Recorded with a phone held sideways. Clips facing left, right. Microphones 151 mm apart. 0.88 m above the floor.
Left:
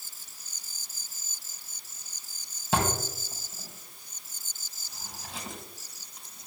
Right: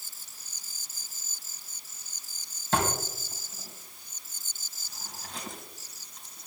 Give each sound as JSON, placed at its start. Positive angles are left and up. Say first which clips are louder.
{"t": 2.7, "sound": "a drawer", "louder": "even", "side_deg": 10, "distance_m": 3.5}